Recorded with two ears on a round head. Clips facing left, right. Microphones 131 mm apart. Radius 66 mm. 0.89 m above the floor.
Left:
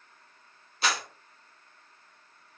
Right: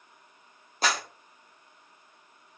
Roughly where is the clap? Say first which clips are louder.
Right 2 dB; right.